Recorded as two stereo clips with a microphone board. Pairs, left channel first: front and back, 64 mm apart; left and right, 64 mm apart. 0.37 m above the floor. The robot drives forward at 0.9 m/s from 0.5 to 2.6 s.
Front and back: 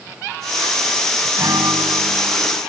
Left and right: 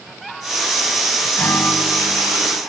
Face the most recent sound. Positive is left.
turn(degrees=165)